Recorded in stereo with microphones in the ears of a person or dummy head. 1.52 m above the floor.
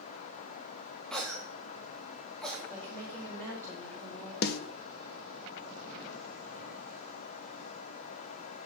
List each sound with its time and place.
1.1 s a cough: 5° left (ahead or behind), 0.9 m
2.7 s a woman speaking: 5° left (ahead or behind), 4.5 m
4.4 s a snare drum: 55° left (ahead or behind), 0.8 m